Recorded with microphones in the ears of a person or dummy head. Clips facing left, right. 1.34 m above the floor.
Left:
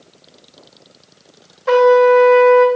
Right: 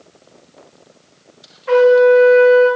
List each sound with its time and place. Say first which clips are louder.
1.7 s a trumpet: right 1 dB; 60° left (ahead or behind), 1.7 m